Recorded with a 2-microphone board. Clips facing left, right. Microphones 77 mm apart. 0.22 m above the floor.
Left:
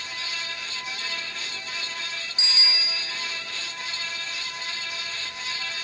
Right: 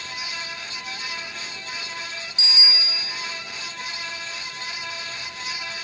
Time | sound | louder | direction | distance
2.4 | a bicycle bell | right 2 dB | 40° left (ahead or behind) | 3 m